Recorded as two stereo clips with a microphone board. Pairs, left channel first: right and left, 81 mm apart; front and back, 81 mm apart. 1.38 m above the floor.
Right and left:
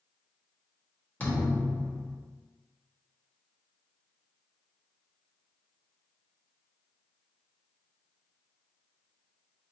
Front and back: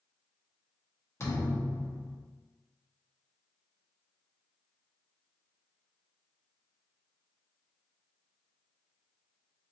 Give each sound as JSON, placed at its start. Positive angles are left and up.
{"t": 1.2, "sound": "a thud", "azimuth_deg": -35, "distance_m": 0.8}